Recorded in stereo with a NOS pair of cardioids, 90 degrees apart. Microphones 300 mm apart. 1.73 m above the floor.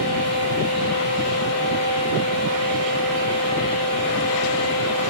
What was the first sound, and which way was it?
A fan, 55° left.